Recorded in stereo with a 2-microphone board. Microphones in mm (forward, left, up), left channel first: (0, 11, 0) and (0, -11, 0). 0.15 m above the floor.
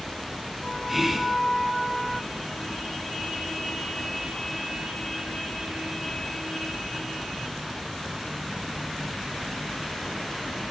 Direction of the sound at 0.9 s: 10° right (ahead or behind).